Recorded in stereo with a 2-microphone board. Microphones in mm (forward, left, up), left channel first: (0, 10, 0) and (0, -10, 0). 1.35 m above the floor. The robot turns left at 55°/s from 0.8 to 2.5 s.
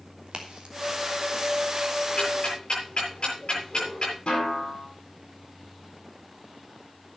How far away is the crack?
About 3 m.